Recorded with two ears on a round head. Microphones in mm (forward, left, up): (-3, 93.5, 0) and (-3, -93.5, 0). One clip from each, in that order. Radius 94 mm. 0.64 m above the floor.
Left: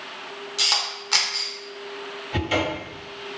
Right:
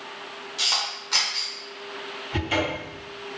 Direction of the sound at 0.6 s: 20° left (ahead or behind).